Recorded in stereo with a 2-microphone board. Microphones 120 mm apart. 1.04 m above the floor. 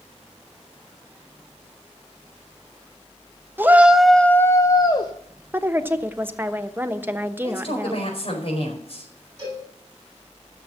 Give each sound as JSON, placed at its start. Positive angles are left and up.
{"t": 3.6, "sound": "a shout", "side_deg": -15, "distance_m": 0.8}
{"t": 5.5, "sound": "a woman speaking", "side_deg": -15, "distance_m": 1.0}
{"t": 7.4, "sound": "a man speaking", "side_deg": 55, "distance_m": 4.5}
{"t": 9.4, "sound": "a cowbell", "side_deg": -30, "distance_m": 10.0}